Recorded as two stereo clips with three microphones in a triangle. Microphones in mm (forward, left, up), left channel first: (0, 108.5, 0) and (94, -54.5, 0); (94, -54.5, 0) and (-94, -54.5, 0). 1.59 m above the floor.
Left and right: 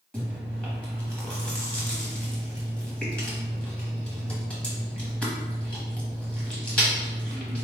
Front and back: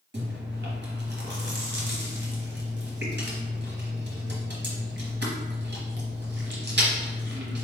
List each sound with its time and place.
0.1 s chewing: 155° right, 1.0 m